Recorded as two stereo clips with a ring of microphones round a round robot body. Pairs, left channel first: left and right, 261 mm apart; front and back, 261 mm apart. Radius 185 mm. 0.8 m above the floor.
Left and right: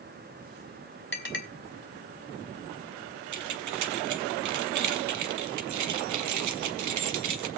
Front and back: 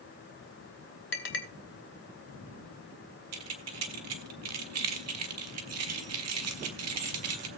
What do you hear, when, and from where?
1.1 s a clink: 45° left, 2.5 m
3.3 s keys jangling: 130° right, 0.7 m